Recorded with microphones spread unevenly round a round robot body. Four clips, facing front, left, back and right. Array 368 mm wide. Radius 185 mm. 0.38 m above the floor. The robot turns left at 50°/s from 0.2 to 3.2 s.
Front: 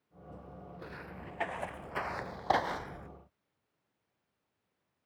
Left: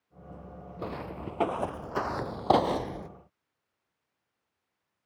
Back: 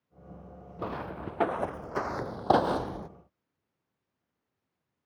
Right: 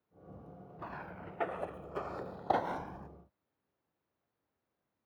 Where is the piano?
No piano in this recording.